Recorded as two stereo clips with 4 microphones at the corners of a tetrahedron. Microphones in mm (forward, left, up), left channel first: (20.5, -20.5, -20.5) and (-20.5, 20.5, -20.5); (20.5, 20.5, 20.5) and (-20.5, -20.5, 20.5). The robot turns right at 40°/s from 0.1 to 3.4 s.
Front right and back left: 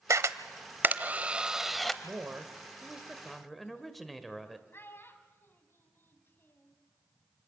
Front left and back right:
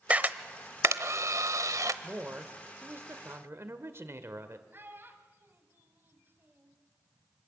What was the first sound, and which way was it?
A camera shutter, 155° left.